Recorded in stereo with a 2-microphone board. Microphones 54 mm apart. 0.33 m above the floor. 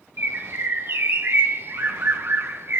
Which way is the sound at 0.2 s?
55° right (ahead or behind).